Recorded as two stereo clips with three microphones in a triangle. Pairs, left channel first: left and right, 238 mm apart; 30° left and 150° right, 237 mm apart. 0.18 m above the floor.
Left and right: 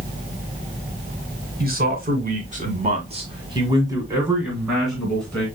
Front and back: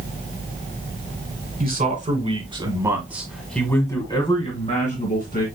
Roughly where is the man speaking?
Behind right.